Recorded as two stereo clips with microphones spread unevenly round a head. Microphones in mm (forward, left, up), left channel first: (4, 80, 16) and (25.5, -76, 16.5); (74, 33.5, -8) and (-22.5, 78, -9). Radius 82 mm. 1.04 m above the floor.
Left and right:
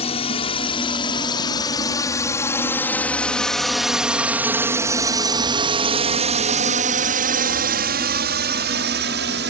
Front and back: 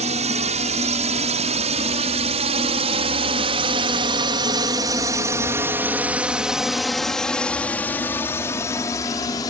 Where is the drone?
150° left; by 9.5 s 90° right.